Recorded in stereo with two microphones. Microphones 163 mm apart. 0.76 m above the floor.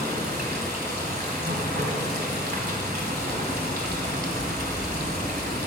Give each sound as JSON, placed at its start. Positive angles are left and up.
{"t": 0.0, "sound": "running water", "side_deg": -75, "distance_m": 1.4}